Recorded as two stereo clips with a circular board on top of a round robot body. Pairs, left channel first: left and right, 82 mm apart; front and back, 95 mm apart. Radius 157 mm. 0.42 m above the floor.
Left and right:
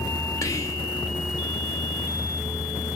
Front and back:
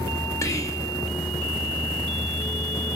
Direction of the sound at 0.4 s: 50° left.